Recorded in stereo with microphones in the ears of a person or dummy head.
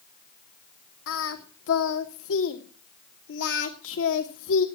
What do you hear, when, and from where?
1.1 s singing: 85° left, 2.5 m